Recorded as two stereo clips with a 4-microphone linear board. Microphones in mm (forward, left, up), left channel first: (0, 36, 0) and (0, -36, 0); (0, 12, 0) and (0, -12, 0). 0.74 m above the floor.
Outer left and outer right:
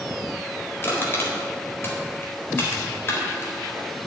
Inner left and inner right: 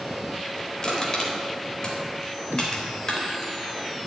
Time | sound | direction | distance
0.8 | crushing | 30° left (ahead or behind) | 4 m